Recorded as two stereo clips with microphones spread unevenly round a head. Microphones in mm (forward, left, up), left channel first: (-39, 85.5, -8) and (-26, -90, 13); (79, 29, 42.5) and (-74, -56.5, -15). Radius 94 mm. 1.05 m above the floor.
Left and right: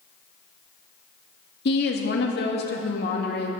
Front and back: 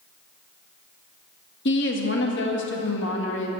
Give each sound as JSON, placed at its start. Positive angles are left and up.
{"t": 1.6, "sound": "a woman speaking", "azimuth_deg": 65, "distance_m": 1.8}